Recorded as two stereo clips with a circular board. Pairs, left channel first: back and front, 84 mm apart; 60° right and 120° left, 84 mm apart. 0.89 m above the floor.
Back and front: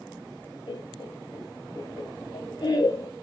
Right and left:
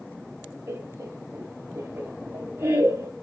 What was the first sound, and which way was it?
Laughter, 175° left.